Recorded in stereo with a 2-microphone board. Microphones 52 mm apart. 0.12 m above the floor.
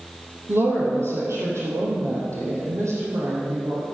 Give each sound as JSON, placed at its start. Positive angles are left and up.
{"t": 0.5, "sound": "a woman speaking", "side_deg": -55, "distance_m": 3.5}